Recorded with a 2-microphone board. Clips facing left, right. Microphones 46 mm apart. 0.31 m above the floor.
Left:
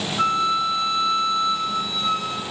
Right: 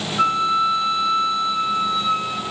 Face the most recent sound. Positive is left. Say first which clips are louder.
# right 3 dB
turn(degrees=-20)  # may be behind; listen again after turning